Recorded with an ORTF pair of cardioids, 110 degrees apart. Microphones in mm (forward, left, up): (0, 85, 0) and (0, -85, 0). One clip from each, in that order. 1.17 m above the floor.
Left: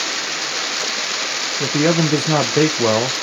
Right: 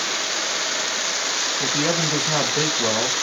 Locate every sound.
1.6 s a man speaking: 35° left, 0.6 m